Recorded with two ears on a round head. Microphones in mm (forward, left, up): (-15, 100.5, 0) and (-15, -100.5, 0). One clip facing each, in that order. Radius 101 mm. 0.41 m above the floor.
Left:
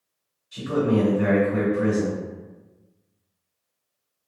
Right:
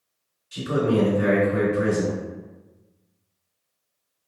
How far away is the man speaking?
About 2.0 m.